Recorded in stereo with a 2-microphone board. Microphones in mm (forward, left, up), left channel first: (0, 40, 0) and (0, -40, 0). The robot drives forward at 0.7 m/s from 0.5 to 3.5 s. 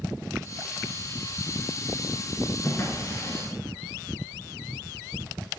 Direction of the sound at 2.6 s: 40° left (ahead or behind).